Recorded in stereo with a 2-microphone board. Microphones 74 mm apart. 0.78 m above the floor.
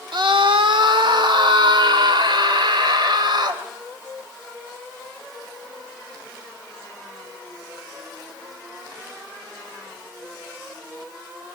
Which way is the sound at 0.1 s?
75° right (ahead or behind).